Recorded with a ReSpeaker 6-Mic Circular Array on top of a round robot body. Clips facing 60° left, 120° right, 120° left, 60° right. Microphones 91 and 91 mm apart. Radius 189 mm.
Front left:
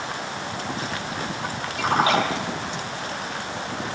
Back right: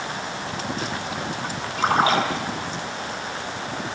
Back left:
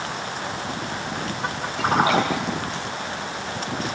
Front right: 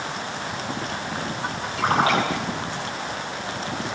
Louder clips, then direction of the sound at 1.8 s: Back right 1 dB, back left 1 dB; 70° right.